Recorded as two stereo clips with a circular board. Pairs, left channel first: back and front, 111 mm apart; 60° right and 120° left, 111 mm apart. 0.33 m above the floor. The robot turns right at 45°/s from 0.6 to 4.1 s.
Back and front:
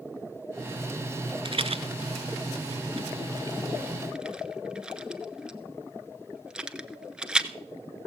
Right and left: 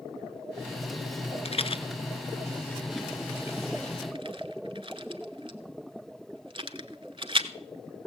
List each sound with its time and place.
1.4 s a rattle: 40° right, 0.7 m; by 7.5 s 80° left, 0.7 m